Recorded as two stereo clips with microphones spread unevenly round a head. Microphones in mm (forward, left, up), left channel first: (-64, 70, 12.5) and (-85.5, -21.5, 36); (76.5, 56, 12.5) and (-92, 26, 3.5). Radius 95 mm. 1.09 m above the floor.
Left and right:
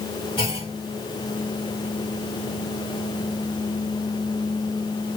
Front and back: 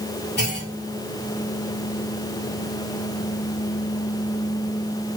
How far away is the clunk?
About 2.5 m.